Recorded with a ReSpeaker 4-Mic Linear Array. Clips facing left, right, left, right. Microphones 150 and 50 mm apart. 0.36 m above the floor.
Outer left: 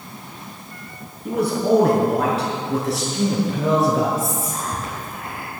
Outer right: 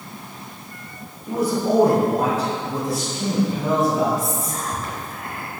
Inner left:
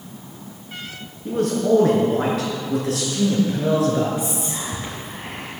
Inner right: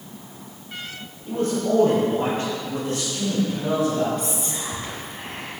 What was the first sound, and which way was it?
A man speaking, 70° left (ahead or behind).